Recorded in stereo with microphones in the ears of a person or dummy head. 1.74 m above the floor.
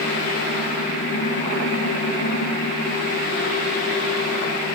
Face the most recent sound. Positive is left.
turn(degrees=45)  # may be behind; listen again after turning